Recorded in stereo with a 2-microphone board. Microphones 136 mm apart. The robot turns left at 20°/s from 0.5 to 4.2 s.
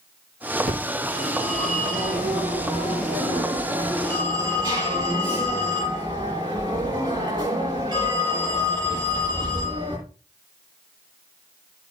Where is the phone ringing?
75° right, 8.5 m; by 10.0 s 145° right, 8.5 m.